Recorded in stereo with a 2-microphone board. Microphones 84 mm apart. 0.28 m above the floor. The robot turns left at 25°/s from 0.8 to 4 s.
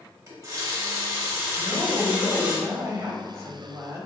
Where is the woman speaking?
15° right (ahead or behind), 1.0 m; by 4.1 s 30° right (ahead or behind), 1.0 m.